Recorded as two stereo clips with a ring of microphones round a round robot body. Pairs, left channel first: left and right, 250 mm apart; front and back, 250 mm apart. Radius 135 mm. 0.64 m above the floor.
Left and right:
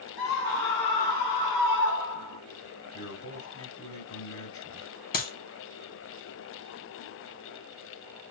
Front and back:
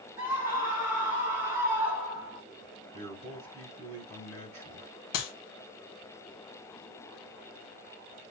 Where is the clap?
35° left, 1.6 m.